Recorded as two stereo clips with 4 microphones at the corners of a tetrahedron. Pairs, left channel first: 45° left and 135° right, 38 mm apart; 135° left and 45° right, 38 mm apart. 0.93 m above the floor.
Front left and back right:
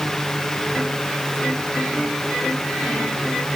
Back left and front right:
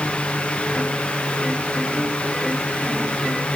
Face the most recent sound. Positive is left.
No sound to turn to.